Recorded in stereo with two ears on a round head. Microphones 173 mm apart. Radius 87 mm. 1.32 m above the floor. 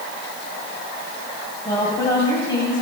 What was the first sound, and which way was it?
A woman speaking, 25° left (ahead or behind).